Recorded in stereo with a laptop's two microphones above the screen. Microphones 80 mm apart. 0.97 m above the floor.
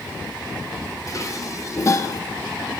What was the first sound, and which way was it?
Dishes clattering, 40° left (ahead or behind).